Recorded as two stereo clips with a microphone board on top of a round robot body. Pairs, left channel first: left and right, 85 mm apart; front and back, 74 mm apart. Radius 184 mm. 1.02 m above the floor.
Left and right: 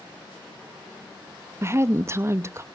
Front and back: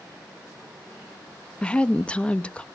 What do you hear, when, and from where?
1.6 s a woman speaking: 65° right, 0.8 m